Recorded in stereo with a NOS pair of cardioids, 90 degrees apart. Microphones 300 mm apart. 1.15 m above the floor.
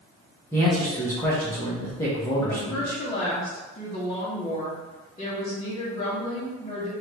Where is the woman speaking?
20° left, 1.5 m.